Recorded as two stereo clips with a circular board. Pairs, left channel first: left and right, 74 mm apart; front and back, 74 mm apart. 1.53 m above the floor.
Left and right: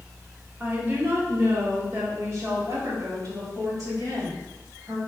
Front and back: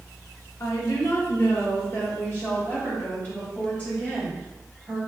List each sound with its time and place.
0.6 s a woman speaking: 30° right, 1.2 m; by 5.0 s 70° right, 4 m